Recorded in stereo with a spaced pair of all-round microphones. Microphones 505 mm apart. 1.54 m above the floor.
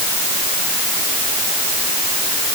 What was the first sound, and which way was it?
Only background noise.